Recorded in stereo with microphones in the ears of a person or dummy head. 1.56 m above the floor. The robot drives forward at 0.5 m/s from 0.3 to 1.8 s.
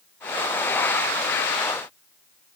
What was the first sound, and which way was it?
Only background noise.